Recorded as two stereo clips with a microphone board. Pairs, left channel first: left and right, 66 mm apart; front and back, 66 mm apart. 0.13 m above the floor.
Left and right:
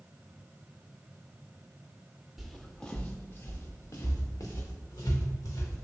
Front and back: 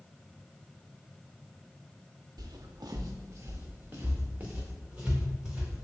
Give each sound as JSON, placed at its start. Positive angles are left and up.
{"t": 2.4, "sound": "footsteps", "azimuth_deg": -175, "distance_m": 0.6}